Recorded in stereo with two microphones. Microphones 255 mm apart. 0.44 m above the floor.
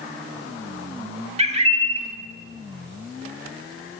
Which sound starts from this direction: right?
A bird, at 1.4 s.